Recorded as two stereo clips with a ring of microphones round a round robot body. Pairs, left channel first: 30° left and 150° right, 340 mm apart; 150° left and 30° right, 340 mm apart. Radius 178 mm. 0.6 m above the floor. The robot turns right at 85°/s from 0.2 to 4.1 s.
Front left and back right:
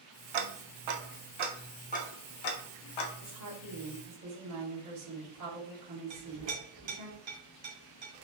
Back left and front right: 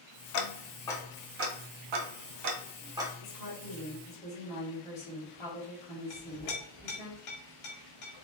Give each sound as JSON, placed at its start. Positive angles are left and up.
{"t": 0.3, "sound": "ticking", "azimuth_deg": -175, "distance_m": 0.6}
{"t": 3.2, "sound": "a woman speaking", "azimuth_deg": 155, "distance_m": 1.7}
{"t": 6.1, "sound": "a clink", "azimuth_deg": -170, "distance_m": 1.6}